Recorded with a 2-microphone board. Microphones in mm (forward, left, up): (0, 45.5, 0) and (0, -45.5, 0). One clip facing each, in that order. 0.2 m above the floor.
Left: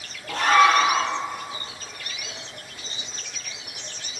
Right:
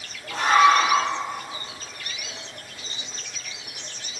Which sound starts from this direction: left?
A scream, at 0.3 s.